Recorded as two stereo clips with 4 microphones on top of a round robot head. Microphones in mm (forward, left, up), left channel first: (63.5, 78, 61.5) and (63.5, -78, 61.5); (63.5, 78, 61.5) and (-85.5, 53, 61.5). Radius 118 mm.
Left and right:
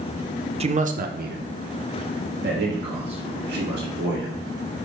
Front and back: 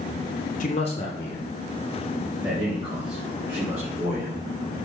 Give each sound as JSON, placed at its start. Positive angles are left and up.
{"t": 0.6, "sound": "a man speaking", "azimuth_deg": -35, "distance_m": 0.7}